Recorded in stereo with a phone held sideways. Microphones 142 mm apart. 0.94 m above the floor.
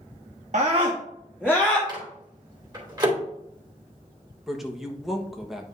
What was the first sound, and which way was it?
A scream, 55° right (ahead or behind).